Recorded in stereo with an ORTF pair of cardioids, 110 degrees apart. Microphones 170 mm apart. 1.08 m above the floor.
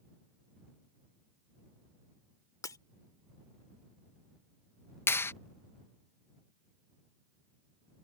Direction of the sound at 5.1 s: 15° left.